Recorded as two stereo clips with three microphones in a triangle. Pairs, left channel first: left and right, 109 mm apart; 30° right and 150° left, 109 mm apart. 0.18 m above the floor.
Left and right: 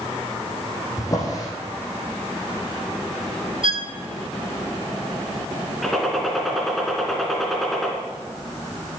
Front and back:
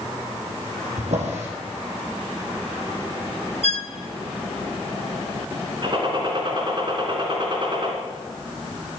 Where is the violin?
50° right, 0.7 m.